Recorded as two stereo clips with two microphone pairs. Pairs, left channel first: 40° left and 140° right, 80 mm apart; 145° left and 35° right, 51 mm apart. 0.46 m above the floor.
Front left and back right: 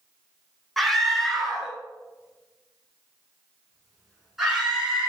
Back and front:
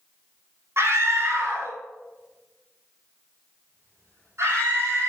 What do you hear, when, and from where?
0.8 s a scream: 45° right, 1.6 m; by 5.1 s 55° right, 5.5 m